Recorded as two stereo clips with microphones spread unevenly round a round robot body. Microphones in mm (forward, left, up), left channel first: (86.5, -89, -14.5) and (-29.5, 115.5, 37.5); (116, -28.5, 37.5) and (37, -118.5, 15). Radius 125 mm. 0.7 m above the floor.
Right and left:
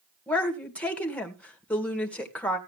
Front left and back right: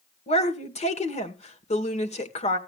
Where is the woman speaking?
20° left, 2 m.